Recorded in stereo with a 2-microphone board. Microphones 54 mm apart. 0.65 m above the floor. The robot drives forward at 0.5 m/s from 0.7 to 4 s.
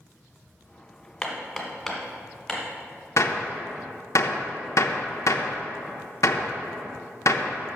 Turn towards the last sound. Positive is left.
turn(degrees=70)  # may be behind; listen again after turning